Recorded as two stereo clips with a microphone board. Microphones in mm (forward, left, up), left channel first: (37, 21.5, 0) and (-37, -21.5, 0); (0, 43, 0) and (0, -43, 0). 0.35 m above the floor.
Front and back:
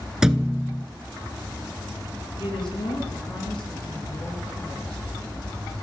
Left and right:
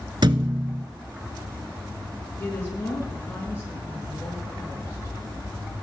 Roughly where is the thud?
Ahead right.